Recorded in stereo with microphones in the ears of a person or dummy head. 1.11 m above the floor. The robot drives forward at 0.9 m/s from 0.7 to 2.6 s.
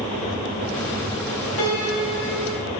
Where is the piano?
45° left (ahead or behind), 4 m; by 2.7 s 35° left (ahead or behind), 4.5 m.